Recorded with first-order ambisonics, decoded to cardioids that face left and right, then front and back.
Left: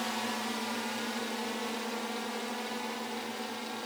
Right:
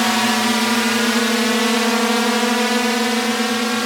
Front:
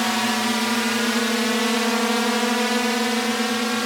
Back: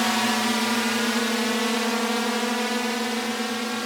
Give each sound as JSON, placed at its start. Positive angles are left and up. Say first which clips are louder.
{"t": 0.0, "sound": "a drone", "louder": "right 17 dB, front 1 dB", "azimuth_deg": -85}